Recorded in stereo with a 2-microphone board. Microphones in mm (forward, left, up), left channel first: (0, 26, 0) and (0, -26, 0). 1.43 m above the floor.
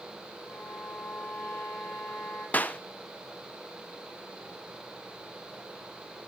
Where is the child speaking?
I don't hear a child speaking.